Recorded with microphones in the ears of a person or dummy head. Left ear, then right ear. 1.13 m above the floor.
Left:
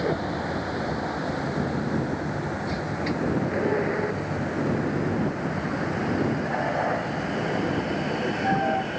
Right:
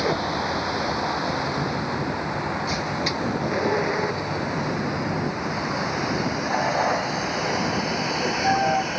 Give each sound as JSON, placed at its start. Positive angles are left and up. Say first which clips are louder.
{"t": 0.0, "sound": "a vehicle", "louder": "right 3 dB", "side_deg": -30}